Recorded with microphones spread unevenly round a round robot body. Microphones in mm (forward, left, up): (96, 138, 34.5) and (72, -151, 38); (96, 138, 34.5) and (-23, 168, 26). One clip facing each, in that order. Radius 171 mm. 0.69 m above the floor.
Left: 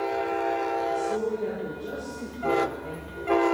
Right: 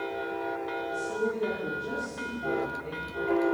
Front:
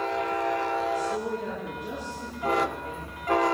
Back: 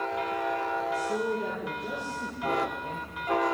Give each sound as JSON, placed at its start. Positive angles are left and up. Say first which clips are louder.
{"t": 0.9, "sound": "a woman speaking", "louder": "even, front 1 dB", "azimuth_deg": -165, "distance_m": 9.5}